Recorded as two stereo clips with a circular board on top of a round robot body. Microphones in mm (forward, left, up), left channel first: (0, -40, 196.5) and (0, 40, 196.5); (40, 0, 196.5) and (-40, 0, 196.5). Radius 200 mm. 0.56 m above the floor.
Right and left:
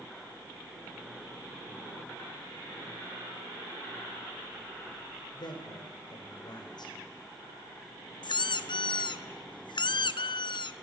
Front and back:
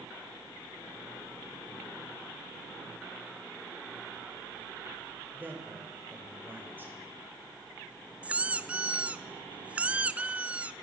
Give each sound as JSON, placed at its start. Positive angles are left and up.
{"t": 5.3, "sound": "a man speaking", "azimuth_deg": -115, "distance_m": 3.5}
{"t": 8.2, "sound": "a squeak", "azimuth_deg": -105, "distance_m": 0.7}